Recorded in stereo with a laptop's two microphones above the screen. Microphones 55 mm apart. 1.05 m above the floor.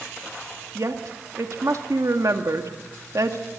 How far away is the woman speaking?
About 1.8 m.